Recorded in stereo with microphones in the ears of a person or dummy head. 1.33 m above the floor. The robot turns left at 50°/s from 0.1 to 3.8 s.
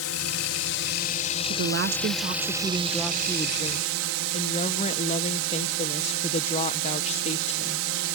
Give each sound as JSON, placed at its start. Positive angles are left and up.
{"t": 0.0, "sound": "a drone", "azimuth_deg": 100}
{"t": 1.4, "sound": "a woman speaking", "azimuth_deg": -105}